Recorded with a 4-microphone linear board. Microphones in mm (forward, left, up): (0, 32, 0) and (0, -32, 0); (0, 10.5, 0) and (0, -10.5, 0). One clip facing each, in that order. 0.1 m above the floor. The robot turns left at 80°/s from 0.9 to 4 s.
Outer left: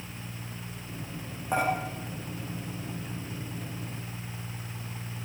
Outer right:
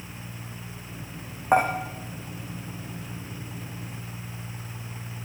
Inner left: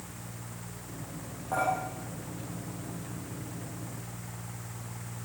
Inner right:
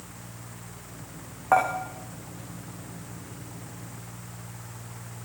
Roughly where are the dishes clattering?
Right.